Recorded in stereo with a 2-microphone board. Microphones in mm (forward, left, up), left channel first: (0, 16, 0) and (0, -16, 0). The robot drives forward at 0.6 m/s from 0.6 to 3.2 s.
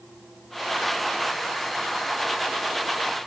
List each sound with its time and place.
Only background noise.